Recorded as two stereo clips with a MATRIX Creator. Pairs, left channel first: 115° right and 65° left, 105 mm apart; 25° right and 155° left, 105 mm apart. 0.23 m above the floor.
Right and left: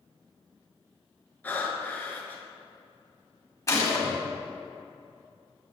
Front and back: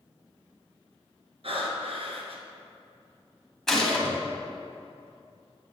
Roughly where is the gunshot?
Right.